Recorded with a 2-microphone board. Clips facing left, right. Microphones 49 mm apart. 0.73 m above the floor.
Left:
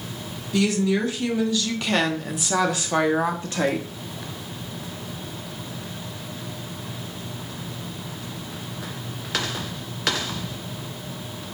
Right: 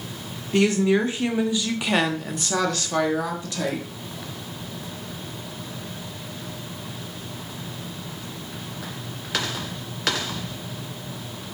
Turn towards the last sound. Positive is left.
turn(degrees=45)  # may be behind; listen again after turning